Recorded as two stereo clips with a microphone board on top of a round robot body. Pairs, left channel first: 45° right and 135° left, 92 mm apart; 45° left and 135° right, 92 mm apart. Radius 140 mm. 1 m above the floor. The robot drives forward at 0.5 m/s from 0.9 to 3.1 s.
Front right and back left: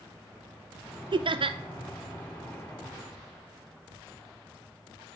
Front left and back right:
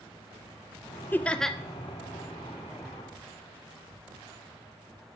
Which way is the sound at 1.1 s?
110° left.